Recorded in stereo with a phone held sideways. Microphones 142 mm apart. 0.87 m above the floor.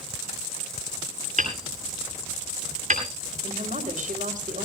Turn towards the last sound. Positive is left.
turn(degrees=-65)  # may be behind; listen again after turning